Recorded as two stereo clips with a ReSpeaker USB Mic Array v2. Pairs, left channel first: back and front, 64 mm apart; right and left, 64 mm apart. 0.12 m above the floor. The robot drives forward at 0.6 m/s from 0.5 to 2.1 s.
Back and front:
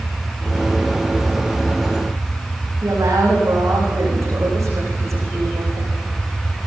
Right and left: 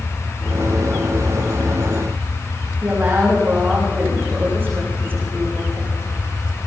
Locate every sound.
2.8 s a woman speaking: 35° left, 9 m